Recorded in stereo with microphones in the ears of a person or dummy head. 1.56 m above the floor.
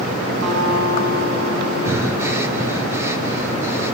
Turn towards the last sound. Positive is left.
turn(degrees=-15)  # may be behind; listen again after turning